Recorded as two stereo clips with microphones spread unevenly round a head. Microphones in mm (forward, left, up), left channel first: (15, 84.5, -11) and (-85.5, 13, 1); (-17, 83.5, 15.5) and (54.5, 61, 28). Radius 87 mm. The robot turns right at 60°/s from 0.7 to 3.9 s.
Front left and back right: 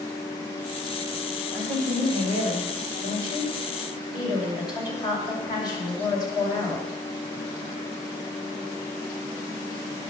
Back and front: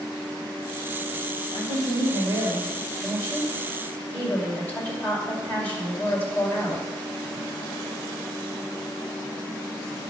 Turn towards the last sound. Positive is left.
turn(degrees=90)